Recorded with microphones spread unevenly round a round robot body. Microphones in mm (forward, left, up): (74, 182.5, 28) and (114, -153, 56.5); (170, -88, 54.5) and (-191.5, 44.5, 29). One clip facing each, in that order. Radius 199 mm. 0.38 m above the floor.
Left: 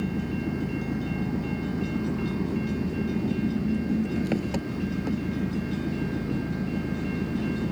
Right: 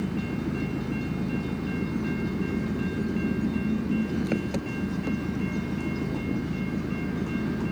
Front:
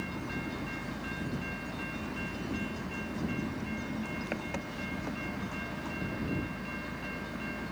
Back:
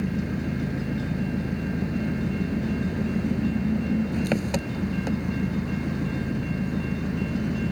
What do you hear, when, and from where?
0.0 s an engine running: 175° right